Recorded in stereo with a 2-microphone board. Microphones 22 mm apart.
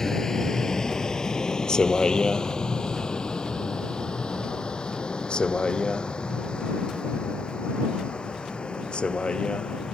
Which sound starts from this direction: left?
A vehicle, at 0.0 s.